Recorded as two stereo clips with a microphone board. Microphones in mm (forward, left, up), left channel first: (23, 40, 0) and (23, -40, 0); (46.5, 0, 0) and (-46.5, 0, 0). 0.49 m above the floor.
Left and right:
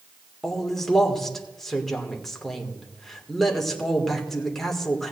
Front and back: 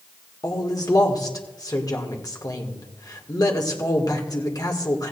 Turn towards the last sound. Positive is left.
turn(degrees=5)